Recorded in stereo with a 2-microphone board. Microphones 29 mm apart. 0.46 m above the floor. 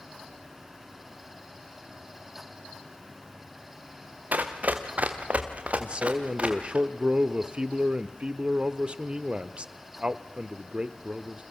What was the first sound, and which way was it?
Running footsteps, 70° right (ahead or behind).